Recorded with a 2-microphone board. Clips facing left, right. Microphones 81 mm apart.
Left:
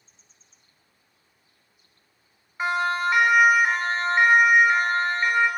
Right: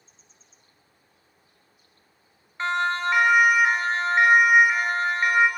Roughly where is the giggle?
No giggle in this recording.